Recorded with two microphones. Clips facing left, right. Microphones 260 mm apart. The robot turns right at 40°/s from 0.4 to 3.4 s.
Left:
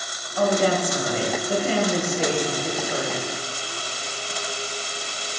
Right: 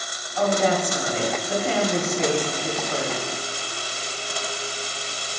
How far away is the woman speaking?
About 2.0 m.